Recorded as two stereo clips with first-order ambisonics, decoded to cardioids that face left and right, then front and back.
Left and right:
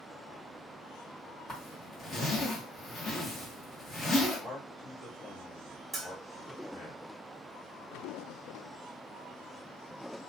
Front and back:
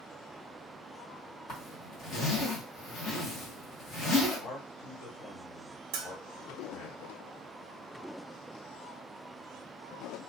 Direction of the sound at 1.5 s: 30° left.